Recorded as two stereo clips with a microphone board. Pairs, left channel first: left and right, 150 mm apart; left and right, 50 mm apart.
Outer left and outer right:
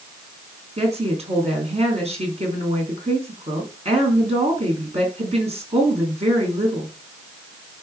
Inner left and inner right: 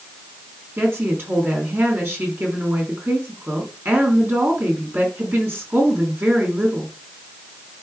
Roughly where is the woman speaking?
Right.